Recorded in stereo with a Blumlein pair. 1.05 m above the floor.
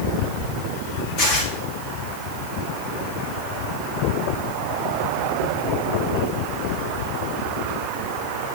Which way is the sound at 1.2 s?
50° left.